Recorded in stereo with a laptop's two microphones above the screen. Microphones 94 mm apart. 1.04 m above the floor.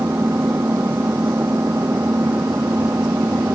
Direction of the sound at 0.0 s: 25° right (ahead or behind).